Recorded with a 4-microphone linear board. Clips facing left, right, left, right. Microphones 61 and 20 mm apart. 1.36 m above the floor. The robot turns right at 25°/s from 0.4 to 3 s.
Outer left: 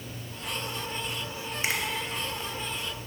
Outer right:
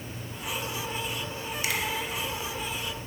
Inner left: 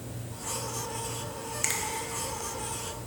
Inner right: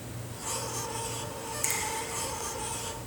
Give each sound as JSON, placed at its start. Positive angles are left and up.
{"t": 1.6, "sound": "a finger snap", "side_deg": 30, "distance_m": 0.7}